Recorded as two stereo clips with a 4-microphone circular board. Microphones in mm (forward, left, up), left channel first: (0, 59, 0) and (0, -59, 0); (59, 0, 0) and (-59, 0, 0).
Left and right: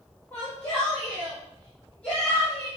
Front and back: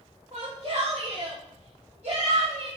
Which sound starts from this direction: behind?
A shout, at 0.3 s.